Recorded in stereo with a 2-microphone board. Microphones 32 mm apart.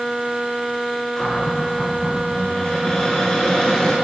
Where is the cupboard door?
25° left (ahead or behind), 7.5 m.